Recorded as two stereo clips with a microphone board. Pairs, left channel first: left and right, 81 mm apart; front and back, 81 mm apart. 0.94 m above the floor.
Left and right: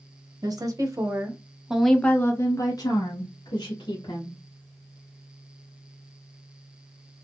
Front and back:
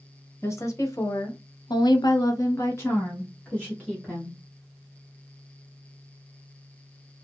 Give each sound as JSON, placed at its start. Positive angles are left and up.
{"t": 0.4, "sound": "a woman speaking", "azimuth_deg": -55, "distance_m": 1.0}